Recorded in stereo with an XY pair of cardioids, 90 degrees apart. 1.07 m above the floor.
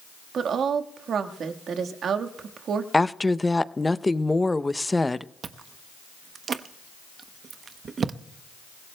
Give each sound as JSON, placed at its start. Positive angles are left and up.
{"t": 0.3, "sound": "a woman speaking", "azimuth_deg": -65, "distance_m": 1.5}
{"t": 2.9, "sound": "a woman speaking", "azimuth_deg": 15, "distance_m": 0.6}
{"t": 5.4, "sound": "chewing", "azimuth_deg": -55, "distance_m": 0.8}